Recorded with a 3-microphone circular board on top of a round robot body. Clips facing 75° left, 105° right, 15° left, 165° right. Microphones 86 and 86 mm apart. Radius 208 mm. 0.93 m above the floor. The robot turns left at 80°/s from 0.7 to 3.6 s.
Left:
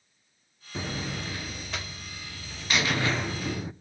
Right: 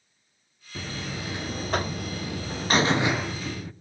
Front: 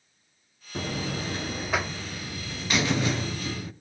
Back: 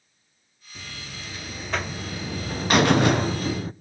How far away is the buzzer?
About 0.6 m.